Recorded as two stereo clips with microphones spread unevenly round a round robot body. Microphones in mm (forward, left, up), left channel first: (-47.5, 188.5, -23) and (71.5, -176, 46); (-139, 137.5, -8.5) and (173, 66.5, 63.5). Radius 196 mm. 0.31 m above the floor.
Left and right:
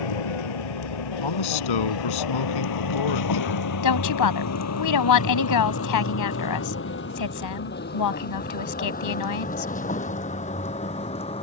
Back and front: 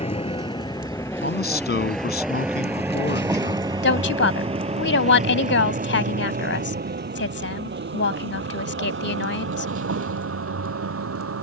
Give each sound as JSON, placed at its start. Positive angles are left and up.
{"t": 0.0, "sound": "a vehicle", "azimuth_deg": 95}
{"t": 1.2, "sound": "a man speaking", "azimuth_deg": 115}
{"t": 3.8, "sound": "a woman speaking", "azimuth_deg": 130}